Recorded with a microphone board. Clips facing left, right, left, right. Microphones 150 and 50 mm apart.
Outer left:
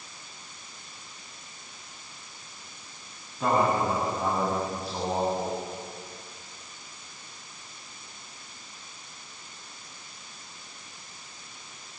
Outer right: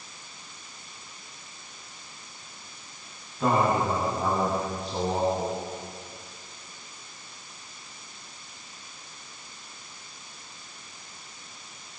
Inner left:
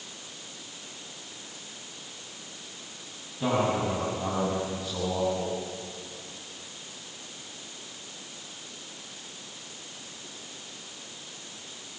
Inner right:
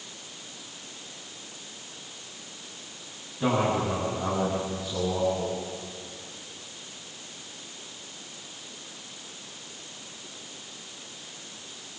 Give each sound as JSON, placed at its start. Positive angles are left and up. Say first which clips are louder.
{"t": 3.4, "sound": "a man speaking", "louder": "outer right 1 dB, inner right 1 dB", "side_deg": 5, "distance_m": 7.5}